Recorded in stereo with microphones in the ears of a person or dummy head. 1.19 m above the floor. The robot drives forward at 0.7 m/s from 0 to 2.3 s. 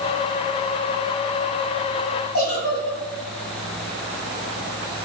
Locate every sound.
2.3 s a giggle: 75° left (ahead or behind), 7 m